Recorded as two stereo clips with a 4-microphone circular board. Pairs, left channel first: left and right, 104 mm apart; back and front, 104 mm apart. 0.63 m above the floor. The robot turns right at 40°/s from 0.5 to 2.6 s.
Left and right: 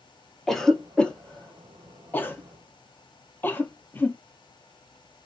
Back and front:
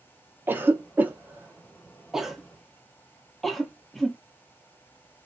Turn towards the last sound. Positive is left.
turn(degrees=90)